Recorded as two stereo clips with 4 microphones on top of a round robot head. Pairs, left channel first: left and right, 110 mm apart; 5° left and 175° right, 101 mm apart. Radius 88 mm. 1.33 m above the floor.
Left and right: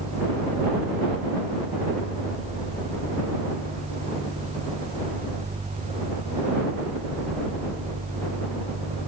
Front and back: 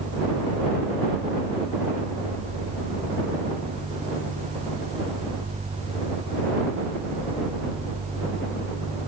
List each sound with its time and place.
Only background noise.